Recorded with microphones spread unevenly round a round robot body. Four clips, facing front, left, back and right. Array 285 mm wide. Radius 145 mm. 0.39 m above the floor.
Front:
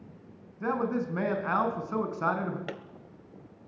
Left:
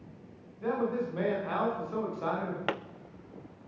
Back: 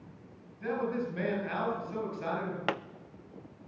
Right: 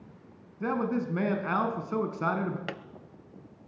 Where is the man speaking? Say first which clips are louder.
Right 1 dB, front 3 dB; 60° right, 4.5 m.